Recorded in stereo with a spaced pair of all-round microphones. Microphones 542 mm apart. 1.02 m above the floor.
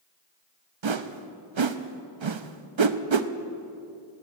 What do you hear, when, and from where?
0.8 s a whoosh: 55° right (ahead or behind), 0.6 m